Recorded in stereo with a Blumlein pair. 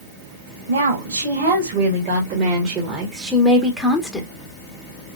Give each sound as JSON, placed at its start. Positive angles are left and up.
{"t": 0.7, "sound": "a woman speaking", "azimuth_deg": -60, "distance_m": 2.0}